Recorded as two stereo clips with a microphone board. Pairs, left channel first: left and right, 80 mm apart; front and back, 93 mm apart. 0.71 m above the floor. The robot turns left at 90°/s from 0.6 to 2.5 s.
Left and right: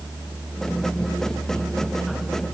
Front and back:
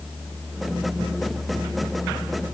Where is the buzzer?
I don't hear a buzzer.